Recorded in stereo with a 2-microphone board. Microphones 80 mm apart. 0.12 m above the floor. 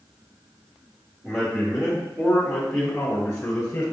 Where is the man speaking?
15° right (ahead or behind), 1.9 m; by 3.8 s 20° left (ahead or behind), 1.5 m.